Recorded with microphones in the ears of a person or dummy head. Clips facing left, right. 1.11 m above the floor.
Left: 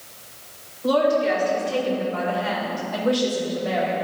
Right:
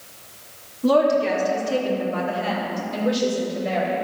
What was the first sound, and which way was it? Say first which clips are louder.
A woman speaking: right 2 dB; 80° right.